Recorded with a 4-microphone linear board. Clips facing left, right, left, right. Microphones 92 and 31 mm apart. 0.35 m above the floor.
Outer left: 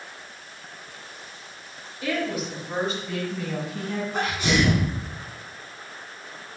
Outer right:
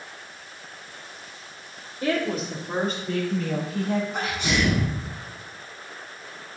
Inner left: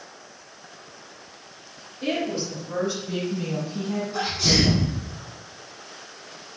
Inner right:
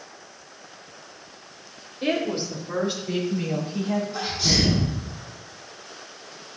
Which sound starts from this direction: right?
A woman speaking, at 2.0 s.